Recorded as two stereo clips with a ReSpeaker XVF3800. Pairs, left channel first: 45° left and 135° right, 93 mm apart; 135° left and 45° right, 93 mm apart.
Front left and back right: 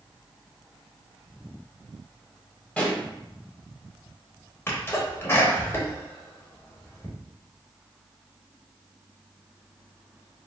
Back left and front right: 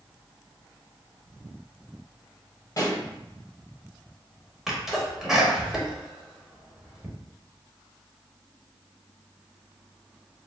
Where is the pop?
115° left, 1.5 m.